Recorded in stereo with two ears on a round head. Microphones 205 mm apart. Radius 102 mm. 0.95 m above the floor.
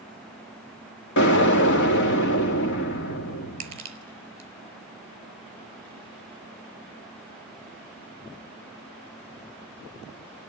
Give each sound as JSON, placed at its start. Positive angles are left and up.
{"t": 1.2, "sound": "an explosion", "side_deg": 55, "distance_m": 2.5}
{"t": 3.6, "sound": "crushing", "side_deg": -25, "distance_m": 4.5}